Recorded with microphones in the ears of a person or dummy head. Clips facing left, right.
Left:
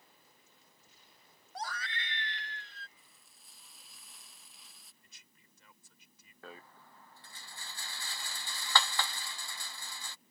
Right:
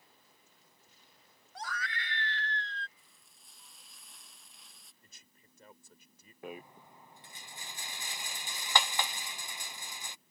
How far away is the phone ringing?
I don't hear a phone ringing.